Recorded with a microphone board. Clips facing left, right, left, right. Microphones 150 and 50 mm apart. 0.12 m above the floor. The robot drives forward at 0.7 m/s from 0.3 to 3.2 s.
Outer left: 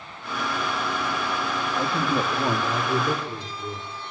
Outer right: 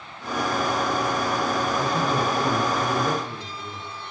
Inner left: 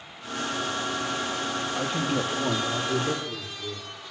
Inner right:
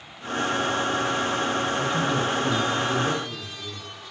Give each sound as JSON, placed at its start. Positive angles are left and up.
{"t": 1.7, "sound": "a man speaking", "side_deg": 10, "distance_m": 3.0}